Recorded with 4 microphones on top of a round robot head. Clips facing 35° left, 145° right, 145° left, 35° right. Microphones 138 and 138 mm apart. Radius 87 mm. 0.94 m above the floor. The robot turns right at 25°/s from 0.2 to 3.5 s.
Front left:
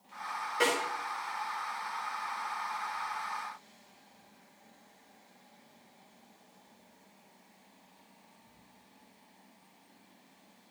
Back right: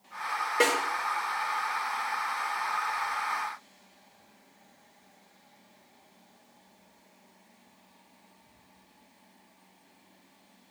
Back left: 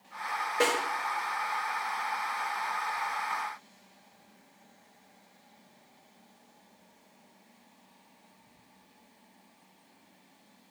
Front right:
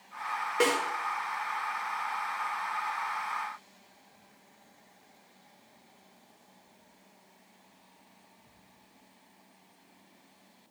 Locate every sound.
0.6 s a snare drum: 115° right, 4.5 m; by 0.8 s 110° right, 4.5 m